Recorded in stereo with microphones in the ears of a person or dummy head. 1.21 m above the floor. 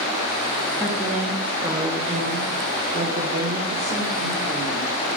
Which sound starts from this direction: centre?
A woman speaking, at 0.8 s.